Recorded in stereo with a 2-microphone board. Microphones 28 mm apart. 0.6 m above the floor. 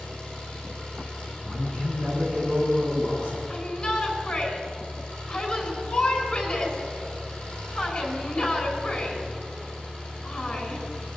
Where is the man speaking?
50° left (ahead or behind), 7 m.